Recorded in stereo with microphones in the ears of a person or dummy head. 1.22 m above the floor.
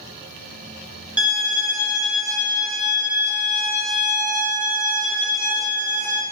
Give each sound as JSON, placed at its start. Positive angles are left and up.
{"t": 1.2, "sound": "a violin", "side_deg": -10, "distance_m": 0.6}